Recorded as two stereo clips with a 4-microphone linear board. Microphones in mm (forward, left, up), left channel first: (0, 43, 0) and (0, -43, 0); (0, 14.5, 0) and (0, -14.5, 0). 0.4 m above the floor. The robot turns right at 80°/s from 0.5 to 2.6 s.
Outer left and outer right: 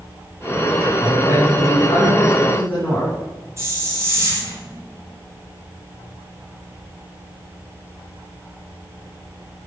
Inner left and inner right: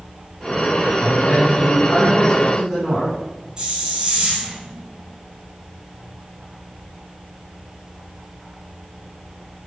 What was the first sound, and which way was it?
A man speaking, 30° left.